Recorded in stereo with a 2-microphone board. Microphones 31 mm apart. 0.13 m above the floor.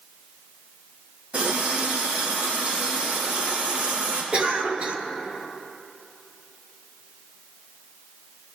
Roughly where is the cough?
Right.